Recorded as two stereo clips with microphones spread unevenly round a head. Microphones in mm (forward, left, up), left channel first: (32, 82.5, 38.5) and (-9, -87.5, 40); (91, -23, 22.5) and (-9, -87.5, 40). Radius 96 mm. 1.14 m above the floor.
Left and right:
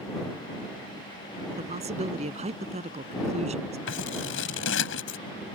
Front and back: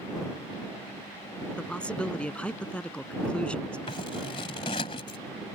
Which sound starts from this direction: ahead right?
A man speaking, at 1.6 s.